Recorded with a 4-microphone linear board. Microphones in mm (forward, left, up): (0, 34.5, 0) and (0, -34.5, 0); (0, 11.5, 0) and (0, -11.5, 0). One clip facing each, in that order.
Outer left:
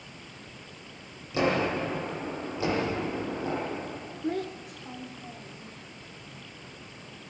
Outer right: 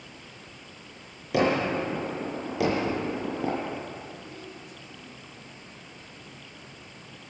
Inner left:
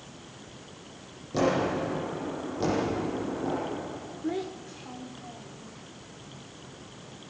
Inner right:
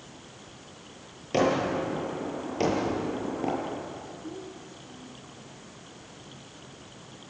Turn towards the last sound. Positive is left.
turn(degrees=75)  # may be behind; listen again after turning